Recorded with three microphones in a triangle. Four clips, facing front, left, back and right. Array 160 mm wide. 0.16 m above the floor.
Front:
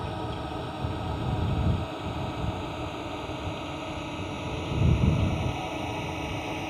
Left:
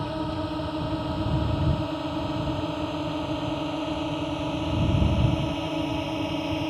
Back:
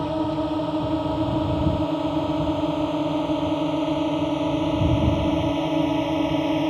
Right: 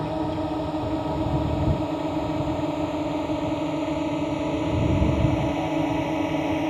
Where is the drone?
165° right; by 6.7 s 160° right.